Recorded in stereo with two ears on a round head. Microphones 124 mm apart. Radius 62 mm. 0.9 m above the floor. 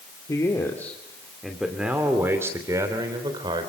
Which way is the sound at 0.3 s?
25° left (ahead or behind).